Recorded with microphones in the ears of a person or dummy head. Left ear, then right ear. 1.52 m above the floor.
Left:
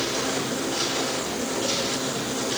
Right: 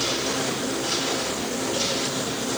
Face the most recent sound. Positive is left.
No sound to turn to.